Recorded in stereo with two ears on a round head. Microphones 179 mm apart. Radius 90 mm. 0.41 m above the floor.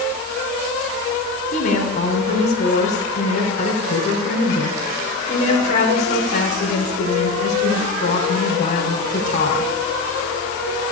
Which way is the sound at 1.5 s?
35° left (ahead or behind).